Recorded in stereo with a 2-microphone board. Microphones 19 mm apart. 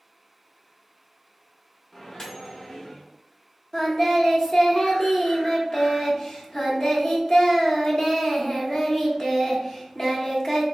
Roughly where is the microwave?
Left.